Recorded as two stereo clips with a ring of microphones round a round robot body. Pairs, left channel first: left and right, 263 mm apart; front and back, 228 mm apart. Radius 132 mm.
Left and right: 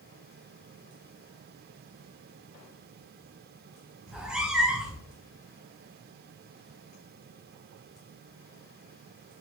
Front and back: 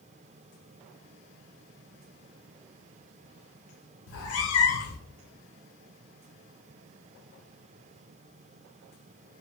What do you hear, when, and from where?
4.1 s a cat meowing: 5° right, 0.8 m